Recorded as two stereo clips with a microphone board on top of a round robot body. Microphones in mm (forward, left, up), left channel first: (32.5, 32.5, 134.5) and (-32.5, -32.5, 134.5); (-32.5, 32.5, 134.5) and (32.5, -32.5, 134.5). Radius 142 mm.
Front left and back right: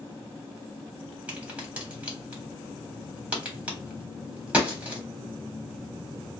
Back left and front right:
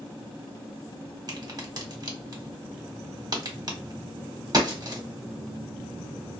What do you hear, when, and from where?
1.3 s a crack: 65° right, 1.5 m